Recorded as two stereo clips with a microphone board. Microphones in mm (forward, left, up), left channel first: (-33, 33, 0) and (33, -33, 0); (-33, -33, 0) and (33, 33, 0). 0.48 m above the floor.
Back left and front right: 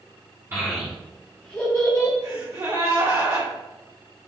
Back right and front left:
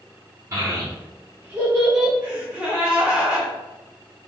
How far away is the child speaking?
About 1.0 m.